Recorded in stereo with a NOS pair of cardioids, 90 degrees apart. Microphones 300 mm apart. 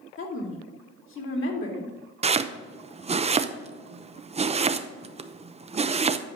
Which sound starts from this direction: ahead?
Chopping, at 2.2 s.